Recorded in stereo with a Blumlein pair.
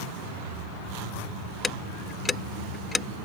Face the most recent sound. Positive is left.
turn(degrees=15)